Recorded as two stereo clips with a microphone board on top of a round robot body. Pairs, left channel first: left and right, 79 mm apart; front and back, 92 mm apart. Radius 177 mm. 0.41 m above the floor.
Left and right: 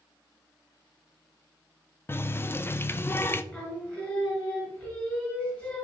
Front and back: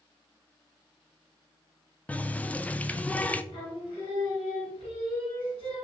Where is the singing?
15° left, 2.5 m.